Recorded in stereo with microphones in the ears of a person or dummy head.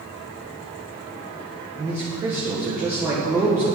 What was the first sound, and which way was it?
A man speaking, 15° right (ahead or behind).